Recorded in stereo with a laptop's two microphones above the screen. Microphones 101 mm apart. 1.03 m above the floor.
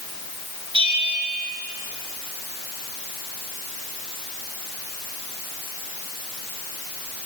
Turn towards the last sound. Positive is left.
turn(degrees=-60)  # may be behind; listen again after turning